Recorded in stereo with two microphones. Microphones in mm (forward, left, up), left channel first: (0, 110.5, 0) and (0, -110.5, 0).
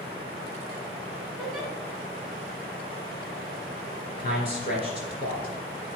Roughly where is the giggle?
Centre.